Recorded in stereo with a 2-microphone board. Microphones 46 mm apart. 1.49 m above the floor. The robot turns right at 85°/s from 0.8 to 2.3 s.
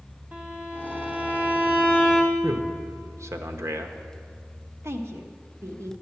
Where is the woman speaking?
70° right (ahead or behind), 1.1 m.